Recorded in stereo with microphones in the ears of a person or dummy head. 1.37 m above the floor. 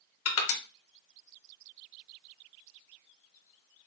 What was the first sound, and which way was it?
Crushing, 75° left (ahead or behind).